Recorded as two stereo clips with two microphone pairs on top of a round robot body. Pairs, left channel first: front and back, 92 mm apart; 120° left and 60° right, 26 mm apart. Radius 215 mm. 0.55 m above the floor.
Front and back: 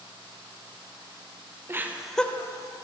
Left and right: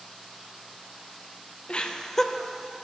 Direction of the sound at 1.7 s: 135° left.